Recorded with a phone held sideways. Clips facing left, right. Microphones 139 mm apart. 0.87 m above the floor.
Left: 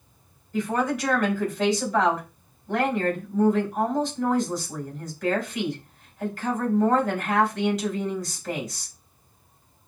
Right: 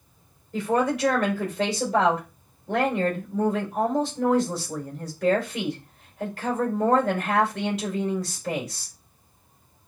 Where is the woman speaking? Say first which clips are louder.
Right 2 dB; 65° right (ahead or behind), 3 m.